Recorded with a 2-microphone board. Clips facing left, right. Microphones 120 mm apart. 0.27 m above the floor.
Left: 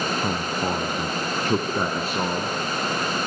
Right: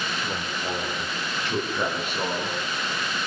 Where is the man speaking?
60° left (ahead or behind), 3.5 m; by 2.5 s 30° left (ahead or behind), 4 m.